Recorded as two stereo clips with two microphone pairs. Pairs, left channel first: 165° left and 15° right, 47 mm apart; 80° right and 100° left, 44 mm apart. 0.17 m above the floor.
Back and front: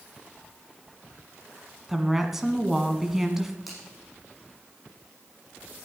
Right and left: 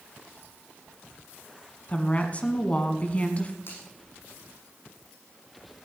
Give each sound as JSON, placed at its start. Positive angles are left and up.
{"t": 1.9, "sound": "a woman speaking", "azimuth_deg": -100, "distance_m": 1.5}
{"t": 3.7, "sound": "a finger snap", "azimuth_deg": -105, "distance_m": 7.0}